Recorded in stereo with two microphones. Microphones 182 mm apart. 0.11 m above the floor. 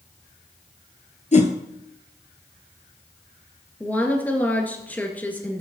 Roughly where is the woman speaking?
Centre.